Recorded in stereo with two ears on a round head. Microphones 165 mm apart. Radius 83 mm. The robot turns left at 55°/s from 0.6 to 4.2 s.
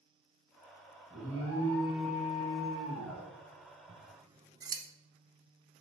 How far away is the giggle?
No giggle in this recording.